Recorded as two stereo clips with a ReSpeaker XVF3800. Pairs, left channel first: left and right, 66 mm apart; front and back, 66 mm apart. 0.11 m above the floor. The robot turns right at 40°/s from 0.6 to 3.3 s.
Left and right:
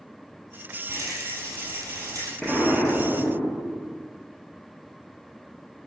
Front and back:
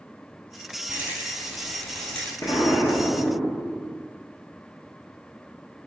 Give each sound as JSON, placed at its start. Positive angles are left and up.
{"t": 0.9, "sound": "a rattle", "azimuth_deg": -120, "distance_m": 1.5}
{"t": 2.4, "sound": "an explosion", "azimuth_deg": 0, "distance_m": 1.2}